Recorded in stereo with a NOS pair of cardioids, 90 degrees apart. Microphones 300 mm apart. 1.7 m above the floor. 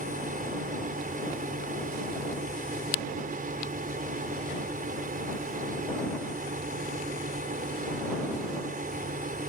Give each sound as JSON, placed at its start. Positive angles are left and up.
{"t": 0.0, "sound": "a fan", "azimuth_deg": -30}